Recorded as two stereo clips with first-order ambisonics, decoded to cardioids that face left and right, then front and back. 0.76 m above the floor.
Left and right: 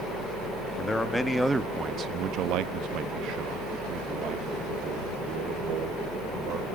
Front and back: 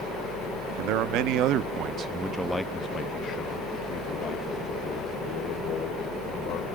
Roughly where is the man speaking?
Behind.